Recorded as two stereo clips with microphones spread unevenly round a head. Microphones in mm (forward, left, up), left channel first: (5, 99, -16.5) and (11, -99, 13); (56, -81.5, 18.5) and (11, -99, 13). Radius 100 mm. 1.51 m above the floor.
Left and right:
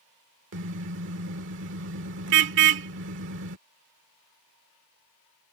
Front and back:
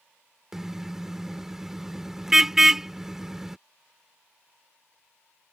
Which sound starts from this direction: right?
A car horn, at 0.5 s.